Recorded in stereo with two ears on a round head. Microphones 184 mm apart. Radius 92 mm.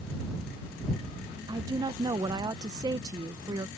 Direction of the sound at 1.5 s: 20° right (ahead or behind).